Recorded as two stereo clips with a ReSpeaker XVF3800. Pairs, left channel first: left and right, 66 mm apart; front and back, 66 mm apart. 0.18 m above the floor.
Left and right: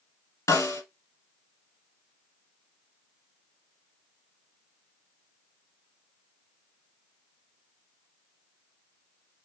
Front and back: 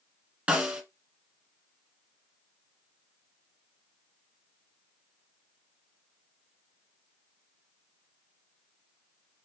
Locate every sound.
0.5 s a snare drum: 115° left, 1.2 m